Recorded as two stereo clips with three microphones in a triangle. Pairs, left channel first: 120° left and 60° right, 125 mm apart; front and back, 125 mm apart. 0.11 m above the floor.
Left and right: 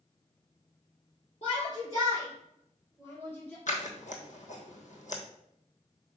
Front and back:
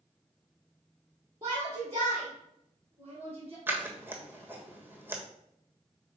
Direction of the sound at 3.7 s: 110° left.